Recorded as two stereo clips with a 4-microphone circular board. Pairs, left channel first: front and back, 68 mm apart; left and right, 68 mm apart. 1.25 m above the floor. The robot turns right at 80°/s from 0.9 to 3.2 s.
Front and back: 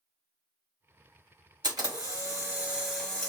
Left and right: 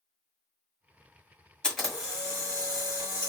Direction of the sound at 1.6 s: 170° left.